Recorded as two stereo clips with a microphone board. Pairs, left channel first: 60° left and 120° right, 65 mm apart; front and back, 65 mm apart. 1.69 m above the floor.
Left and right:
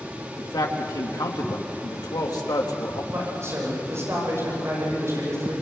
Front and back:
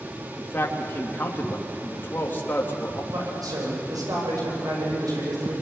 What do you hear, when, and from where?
0.4 s a man speaking: 55° left, 3 m
3.1 s a man speaking: 170° right, 9.5 m